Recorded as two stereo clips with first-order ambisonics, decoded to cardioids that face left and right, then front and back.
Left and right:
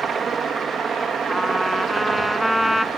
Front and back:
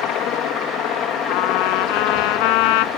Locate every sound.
0.0 s a helicopter: 30° right
1.3 s a trumpet: straight ahead